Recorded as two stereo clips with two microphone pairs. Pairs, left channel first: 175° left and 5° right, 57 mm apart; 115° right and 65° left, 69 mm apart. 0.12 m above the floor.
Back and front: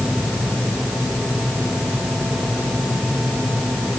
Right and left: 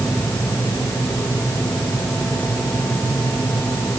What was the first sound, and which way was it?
Only background noise.